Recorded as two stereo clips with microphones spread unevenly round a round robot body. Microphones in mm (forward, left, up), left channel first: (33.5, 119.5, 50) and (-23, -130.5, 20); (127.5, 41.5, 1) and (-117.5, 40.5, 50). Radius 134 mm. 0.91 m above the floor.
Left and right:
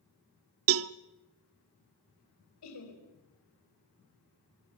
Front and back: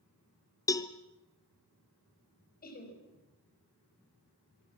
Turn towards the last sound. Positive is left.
turn(degrees=55)